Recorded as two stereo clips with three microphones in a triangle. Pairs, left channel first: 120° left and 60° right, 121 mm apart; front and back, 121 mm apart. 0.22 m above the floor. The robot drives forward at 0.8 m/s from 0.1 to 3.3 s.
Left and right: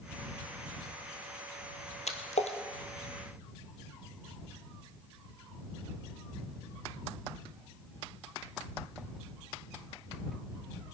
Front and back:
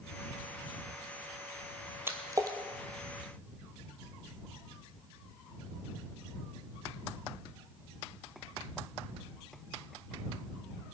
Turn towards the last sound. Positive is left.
turn(degrees=140)